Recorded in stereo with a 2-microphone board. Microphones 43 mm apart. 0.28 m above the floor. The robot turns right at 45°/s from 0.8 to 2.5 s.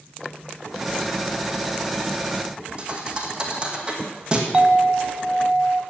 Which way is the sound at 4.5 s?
20° right (ahead or behind).